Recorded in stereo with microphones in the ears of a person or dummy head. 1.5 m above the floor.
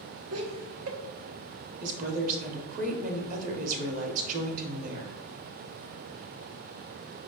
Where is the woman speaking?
45° right (ahead or behind), 0.8 m.